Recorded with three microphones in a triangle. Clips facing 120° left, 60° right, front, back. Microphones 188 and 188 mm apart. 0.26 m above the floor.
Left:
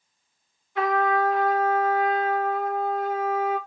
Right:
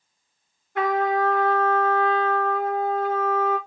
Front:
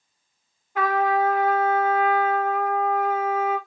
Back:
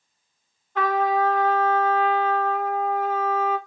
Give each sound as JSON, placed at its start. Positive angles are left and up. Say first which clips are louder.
{"t": 0.8, "sound": "a trumpet", "louder": "right 1 dB, even", "azimuth_deg": -80, "distance_m": 2.5}